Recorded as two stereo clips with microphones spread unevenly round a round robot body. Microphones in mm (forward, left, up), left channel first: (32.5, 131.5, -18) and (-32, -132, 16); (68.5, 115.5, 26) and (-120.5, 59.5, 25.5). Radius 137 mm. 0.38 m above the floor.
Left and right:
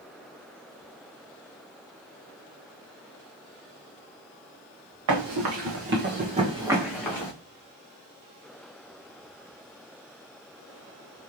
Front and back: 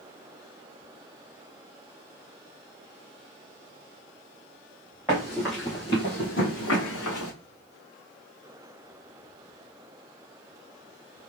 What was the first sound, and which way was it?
Running footsteps, 80° right.